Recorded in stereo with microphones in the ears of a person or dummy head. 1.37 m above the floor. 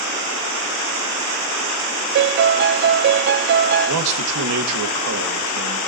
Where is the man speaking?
80° right, 1.7 m.